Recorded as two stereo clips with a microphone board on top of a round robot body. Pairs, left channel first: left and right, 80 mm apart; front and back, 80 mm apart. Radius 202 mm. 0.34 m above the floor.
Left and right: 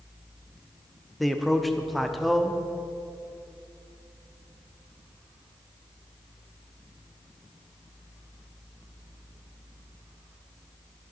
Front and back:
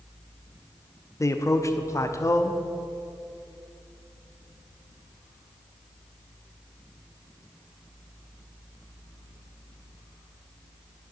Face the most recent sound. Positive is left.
turn(degrees=0)